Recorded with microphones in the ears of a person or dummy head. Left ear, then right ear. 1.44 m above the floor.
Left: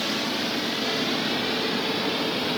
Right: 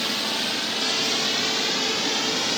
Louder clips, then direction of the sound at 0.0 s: Right 2 dB; 35° right (ahead or behind).